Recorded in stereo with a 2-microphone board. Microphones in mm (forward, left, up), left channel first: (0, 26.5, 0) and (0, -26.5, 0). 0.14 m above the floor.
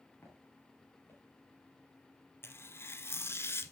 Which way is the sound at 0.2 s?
45° left (ahead or behind).